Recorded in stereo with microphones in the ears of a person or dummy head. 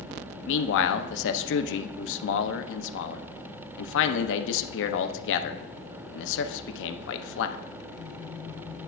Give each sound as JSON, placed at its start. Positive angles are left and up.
{"t": 0.5, "sound": "a man speaking", "side_deg": 75, "distance_m": 0.7}